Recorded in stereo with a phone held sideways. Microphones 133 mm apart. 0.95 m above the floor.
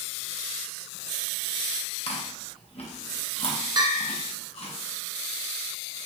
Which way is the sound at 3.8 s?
35° right (ahead or behind).